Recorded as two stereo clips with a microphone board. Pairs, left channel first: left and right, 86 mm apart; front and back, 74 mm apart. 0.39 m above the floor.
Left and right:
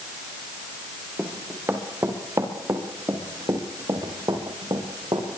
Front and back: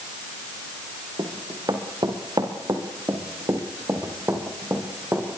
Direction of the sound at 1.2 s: 160° right.